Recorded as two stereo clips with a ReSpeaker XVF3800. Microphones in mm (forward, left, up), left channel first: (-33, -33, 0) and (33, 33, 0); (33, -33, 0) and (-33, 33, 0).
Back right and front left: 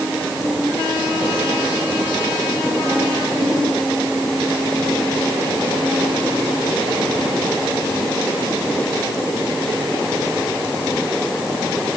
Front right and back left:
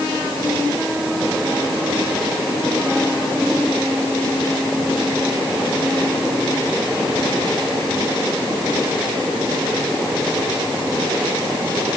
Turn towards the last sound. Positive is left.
No sound to turn to.